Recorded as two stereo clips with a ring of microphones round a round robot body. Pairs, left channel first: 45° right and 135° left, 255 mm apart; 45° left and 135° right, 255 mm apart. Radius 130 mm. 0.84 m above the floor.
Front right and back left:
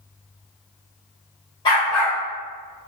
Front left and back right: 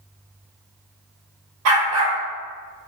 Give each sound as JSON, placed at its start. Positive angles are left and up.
{"t": 1.6, "sound": "a dog barking", "azimuth_deg": -115, "distance_m": 0.7}